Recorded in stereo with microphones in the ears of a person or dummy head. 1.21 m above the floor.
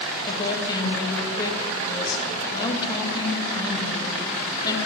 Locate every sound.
0.3 s a woman speaking: 25° left (ahead or behind), 1.6 m